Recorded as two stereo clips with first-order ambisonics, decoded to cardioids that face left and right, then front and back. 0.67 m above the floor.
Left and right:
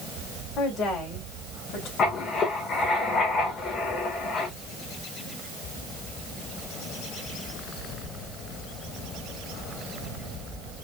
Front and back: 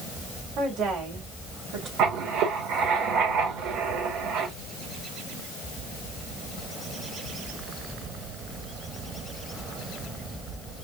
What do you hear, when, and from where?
0.6 s a woman speaking: 140° left, 3.5 m; by 1.9 s 130° left, 3 m
2.0 s writing: 145° left, 2.0 m